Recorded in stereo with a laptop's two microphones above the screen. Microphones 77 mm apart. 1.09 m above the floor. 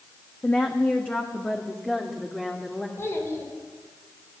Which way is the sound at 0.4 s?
20° left (ahead or behind).